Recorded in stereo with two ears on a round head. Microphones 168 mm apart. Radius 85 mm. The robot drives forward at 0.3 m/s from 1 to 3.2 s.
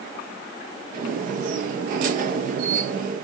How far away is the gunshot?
No gunshot in this recording.